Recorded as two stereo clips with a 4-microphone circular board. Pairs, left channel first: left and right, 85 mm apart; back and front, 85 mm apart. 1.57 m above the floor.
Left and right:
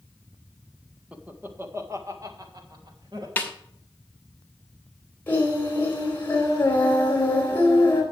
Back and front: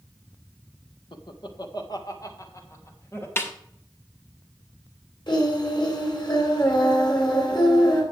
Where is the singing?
155° left, 3.5 m.